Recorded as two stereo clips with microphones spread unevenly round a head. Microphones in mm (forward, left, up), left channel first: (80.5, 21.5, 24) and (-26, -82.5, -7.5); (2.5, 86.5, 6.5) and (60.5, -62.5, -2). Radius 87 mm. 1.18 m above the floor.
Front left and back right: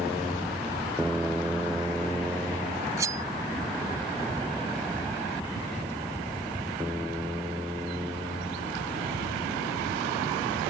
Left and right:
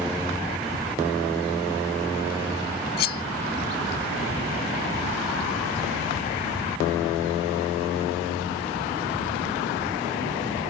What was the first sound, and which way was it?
Cutlery clinking, 145° left.